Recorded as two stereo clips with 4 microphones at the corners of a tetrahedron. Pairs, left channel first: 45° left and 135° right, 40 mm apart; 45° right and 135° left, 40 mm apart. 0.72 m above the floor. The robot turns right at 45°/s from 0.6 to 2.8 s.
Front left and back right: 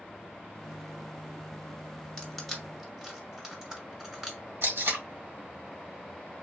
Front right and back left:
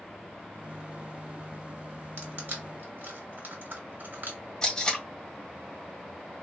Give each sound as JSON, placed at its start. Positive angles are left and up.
{"t": 2.2, "sound": "crushing", "azimuth_deg": 120, "distance_m": 1.4}
{"t": 4.6, "sound": "tape being pulled", "azimuth_deg": -125, "distance_m": 1.6}